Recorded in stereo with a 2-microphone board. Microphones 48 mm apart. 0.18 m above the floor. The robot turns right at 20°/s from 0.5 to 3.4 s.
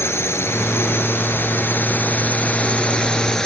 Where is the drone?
105° left; by 3.5 s 165° left.